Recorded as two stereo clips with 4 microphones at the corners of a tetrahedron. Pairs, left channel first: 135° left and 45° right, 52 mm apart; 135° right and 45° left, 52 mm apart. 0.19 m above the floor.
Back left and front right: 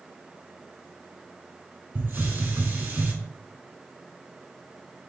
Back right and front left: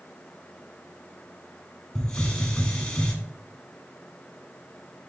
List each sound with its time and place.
1.9 s a hiss: 65° right, 0.9 m